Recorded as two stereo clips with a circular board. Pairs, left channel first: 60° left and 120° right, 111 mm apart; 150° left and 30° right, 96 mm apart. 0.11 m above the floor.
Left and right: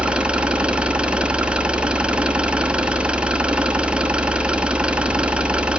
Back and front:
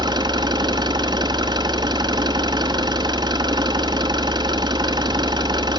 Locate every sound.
0.0 s an engine running: 40° right, 0.8 m